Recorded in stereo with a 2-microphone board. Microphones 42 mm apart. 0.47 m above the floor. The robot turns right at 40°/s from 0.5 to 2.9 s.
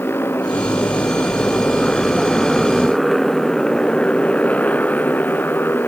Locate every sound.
0.0 s a motorcycle: 65° left (ahead or behind); by 5.9 s 55° left (ahead or behind)